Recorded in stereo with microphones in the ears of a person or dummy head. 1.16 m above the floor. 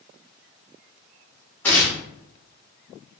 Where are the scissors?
I don't hear scissors.